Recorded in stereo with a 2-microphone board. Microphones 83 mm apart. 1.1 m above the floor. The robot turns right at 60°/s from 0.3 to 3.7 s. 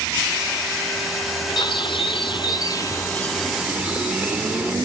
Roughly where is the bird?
Ahead left.